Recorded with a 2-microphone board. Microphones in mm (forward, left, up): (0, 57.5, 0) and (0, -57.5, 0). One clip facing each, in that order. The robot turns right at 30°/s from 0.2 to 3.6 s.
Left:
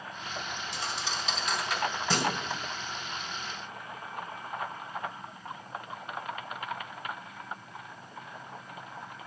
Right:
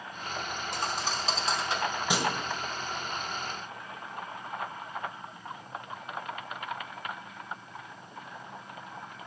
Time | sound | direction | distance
0.7 | a thud | 55° right (ahead or behind) | 2.0 m